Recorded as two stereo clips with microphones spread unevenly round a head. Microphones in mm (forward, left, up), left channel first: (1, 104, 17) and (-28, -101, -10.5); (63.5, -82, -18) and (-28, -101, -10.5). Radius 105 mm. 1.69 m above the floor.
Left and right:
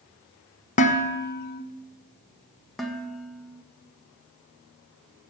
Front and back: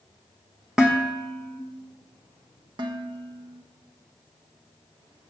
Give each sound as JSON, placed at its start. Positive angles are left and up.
{"t": 0.8, "sound": "dishes clattering", "azimuth_deg": 115, "distance_m": 1.0}
{"t": 2.8, "sound": "dishes clattering", "azimuth_deg": 165, "distance_m": 1.2}